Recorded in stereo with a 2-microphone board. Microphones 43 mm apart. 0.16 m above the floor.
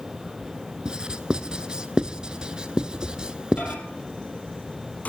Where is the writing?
20° right (ahead or behind), 0.8 m.